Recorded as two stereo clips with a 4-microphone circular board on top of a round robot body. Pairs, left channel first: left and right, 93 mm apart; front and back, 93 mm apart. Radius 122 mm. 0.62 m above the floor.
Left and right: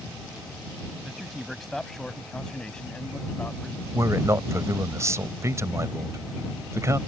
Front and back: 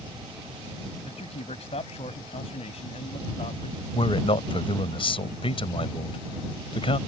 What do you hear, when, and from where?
1.1 s a man speaking: straight ahead; by 3.8 s 15° left
3.9 s a man speaking: 30° right